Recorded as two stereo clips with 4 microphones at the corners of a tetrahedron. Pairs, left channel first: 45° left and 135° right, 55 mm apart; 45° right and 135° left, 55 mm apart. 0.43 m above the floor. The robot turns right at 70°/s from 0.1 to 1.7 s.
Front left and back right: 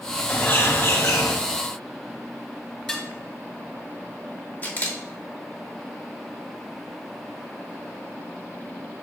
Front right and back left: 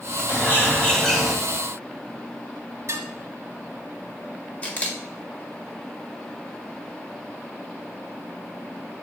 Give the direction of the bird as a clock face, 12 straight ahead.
1 o'clock.